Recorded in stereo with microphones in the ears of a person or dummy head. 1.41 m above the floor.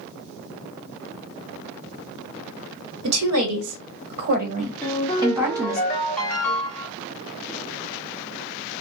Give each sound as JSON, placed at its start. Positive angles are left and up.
{"t": 3.0, "sound": "a woman speaking", "side_deg": -85, "distance_m": 1.4}
{"t": 4.8, "sound": "a ringtone", "side_deg": 10, "distance_m": 1.8}